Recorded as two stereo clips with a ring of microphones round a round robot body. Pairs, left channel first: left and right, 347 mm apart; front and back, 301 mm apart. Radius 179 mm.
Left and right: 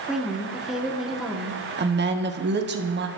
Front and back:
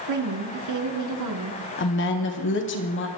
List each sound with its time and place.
0.1 s a woman speaking: straight behind, 2 m
1.8 s a woman speaking: 40° right, 1.5 m